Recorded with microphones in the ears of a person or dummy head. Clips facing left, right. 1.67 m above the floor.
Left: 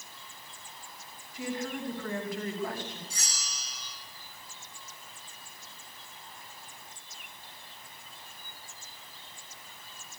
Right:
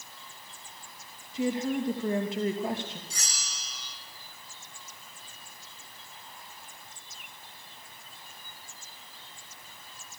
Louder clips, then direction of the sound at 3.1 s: Even; 70° right (ahead or behind).